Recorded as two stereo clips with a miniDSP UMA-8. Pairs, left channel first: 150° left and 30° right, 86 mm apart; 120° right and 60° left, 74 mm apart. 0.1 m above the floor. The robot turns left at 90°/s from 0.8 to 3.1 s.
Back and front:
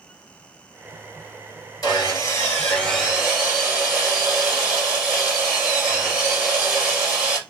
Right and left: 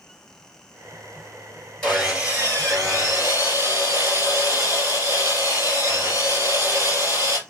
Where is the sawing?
165° left, 2.5 m; by 7.4 s 50° left, 2.5 m.